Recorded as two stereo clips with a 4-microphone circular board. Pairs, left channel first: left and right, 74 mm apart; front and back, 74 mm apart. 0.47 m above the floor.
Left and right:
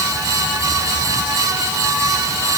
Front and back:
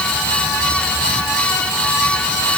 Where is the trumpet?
No trumpet in this recording.